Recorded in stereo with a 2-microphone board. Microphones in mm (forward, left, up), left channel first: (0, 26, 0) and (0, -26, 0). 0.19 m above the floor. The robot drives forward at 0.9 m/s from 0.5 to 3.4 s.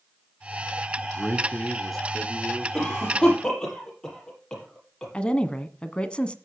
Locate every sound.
1.0 s a man speaking: 5° left (ahead or behind), 1.4 m
2.7 s a cough: 15° left (ahead or behind), 6.5 m
5.1 s a woman speaking: 20° left (ahead or behind), 1.3 m